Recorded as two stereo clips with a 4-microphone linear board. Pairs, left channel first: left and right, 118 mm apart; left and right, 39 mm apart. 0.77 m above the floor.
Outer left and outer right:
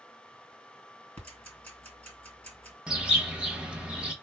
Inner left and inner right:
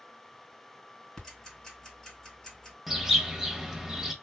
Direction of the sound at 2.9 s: 10° right (ahead or behind).